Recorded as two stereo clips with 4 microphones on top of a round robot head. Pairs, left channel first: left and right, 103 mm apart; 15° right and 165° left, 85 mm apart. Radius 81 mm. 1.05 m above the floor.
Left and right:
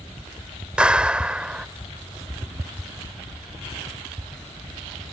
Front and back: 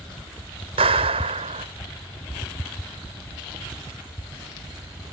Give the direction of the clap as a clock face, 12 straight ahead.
6 o'clock.